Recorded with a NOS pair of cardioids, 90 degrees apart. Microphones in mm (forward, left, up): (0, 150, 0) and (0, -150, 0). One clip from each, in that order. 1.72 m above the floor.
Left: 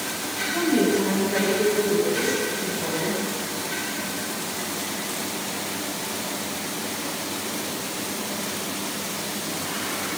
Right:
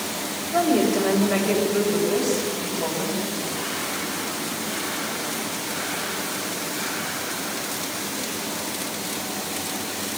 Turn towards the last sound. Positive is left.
turn(degrees=-70)